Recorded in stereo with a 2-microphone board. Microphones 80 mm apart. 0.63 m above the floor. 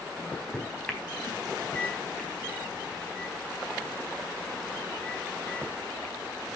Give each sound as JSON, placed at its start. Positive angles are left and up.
{"t": 0.2, "sound": "a microwave", "side_deg": 15, "distance_m": 4.0}